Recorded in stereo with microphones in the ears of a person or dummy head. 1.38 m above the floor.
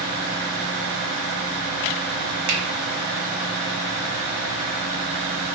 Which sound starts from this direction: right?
A finger snap, at 2.5 s.